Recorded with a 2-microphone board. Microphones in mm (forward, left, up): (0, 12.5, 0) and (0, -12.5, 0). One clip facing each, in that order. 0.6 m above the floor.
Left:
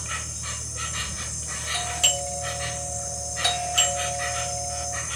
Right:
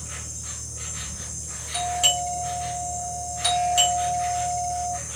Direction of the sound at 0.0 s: 80° left.